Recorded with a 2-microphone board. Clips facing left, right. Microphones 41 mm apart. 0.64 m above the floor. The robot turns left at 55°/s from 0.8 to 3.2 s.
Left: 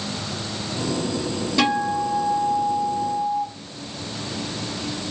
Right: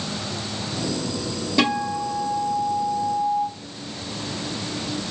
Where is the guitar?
5° right (ahead or behind), 0.8 m; by 3.5 s 25° left (ahead or behind), 0.8 m.